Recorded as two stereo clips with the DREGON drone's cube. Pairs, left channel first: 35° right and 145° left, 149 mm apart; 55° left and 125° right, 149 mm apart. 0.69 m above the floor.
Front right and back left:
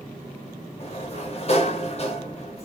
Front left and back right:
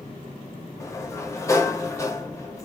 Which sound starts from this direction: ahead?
A sliding door, at 0.8 s.